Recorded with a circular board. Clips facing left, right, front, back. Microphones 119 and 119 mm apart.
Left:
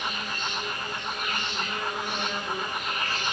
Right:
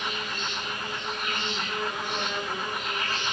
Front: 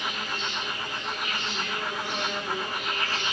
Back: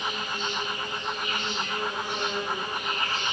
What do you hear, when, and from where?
0.0 s an insect: 5° left, 6.5 m